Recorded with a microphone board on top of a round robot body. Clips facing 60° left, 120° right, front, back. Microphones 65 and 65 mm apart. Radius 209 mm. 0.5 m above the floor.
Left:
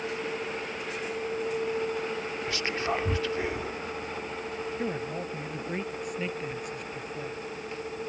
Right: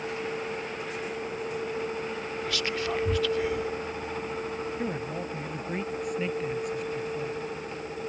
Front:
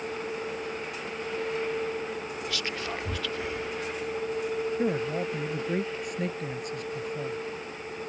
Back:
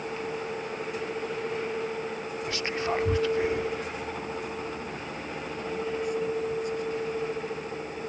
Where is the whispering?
120° left.